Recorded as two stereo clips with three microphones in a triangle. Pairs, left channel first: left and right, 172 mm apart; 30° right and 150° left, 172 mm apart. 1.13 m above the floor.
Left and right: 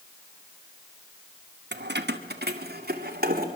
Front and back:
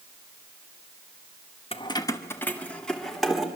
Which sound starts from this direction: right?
Keys jangling, at 1.7 s.